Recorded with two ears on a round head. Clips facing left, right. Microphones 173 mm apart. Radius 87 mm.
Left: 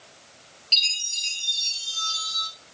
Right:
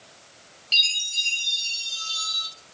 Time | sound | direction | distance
0.7 | a chime | centre (ahead or behind) | 1.5 m